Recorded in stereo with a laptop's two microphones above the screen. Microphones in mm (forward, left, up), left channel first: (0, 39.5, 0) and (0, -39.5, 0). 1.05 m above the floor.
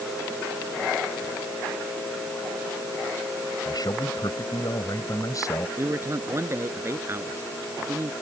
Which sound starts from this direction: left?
A man speaking, at 3.6 s.